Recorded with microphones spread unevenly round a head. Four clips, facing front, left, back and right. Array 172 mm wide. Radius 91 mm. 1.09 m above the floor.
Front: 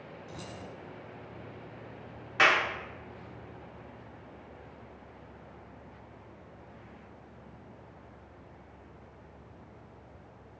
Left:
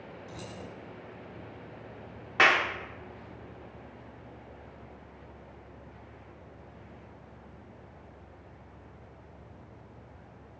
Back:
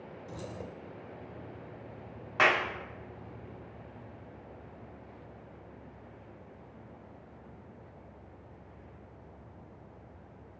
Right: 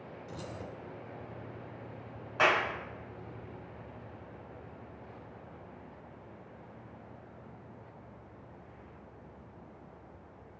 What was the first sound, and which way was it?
Keys jangling, 165° left.